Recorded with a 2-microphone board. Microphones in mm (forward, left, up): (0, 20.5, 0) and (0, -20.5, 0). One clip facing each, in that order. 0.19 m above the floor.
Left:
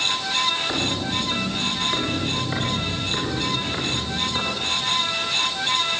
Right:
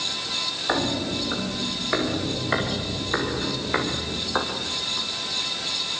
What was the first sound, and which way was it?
Footsteps, 25° right (ahead or behind).